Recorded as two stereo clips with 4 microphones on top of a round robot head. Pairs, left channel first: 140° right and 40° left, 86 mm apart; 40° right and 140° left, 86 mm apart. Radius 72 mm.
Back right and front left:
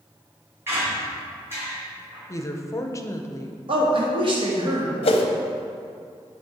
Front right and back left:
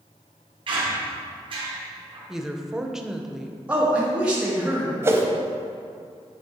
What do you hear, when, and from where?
0.7 s a squeak: 105° left, 2.5 m
2.3 s a woman speaking: 140° right, 0.8 m
3.7 s a man speaking: 60° left, 1.9 m
5.0 s a whoosh: 160° right, 0.6 m